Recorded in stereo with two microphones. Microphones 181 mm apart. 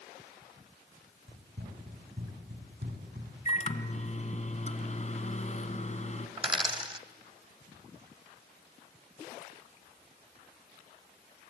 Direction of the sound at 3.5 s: 40° left (ahead or behind).